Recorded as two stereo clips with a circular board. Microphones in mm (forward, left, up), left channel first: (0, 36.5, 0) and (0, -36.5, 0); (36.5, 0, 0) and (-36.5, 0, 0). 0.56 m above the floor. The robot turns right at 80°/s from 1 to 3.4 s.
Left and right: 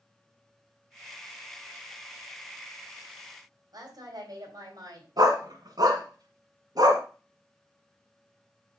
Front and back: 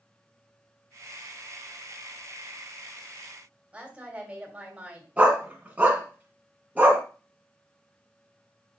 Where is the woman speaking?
110° right, 3 m.